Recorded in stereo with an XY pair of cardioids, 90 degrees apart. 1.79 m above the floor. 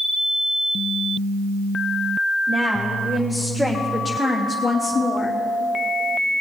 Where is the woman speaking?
30° right, 1.6 m; by 5.4 s 45° left, 1.3 m.